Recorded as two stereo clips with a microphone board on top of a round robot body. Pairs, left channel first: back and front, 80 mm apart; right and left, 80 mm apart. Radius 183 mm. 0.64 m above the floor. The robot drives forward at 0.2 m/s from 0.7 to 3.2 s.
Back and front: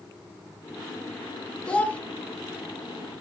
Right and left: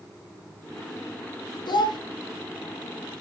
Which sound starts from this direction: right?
A child speaking, at 1.7 s.